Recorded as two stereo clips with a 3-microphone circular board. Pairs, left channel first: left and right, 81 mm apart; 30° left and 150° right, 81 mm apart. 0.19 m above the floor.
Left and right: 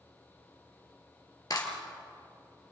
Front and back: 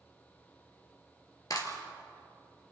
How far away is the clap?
About 3 m.